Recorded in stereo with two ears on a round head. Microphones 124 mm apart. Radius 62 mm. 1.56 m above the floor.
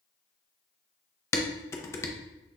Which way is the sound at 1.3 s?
20° left (ahead or behind).